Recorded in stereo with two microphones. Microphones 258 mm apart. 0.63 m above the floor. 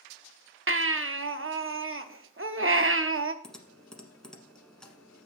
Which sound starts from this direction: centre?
Typing on a keyboard, at 3.4 s.